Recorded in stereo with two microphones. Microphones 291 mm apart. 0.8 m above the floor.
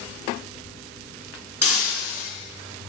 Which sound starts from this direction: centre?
Breaking glass, at 1.6 s.